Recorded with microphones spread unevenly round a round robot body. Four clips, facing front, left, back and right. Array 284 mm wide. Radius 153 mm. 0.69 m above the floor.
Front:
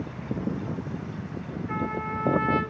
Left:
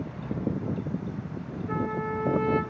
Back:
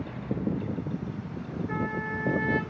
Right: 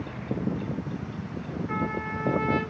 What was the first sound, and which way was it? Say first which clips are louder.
A trumpet: left 2 dB, front 3 dB; 115° left.